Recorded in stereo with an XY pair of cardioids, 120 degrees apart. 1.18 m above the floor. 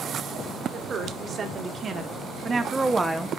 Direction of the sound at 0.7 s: 45° right.